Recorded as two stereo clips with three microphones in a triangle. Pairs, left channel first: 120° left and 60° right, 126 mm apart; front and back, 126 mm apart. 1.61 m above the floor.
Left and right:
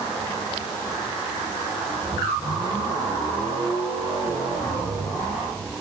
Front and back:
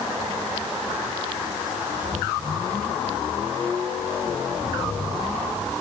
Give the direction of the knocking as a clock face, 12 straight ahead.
I don't hear knocking.